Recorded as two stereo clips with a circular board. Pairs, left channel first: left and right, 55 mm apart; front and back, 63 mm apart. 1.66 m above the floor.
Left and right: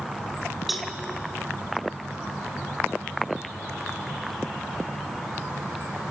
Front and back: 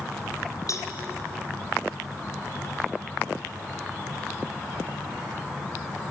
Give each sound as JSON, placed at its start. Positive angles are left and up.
{"t": 0.7, "sound": "a cowbell", "azimuth_deg": 0, "distance_m": 2.5}